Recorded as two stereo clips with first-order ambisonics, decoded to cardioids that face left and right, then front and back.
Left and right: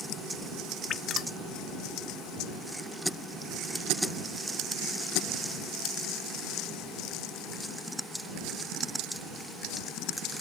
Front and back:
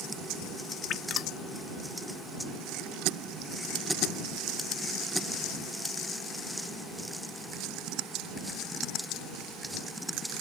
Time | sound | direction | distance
0.9 | dripping | 35° left | ?